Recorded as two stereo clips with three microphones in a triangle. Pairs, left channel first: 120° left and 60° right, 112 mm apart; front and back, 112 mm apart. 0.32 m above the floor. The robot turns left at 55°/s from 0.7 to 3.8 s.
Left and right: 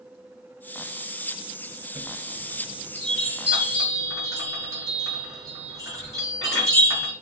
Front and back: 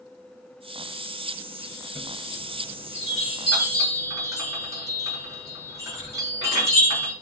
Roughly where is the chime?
Ahead.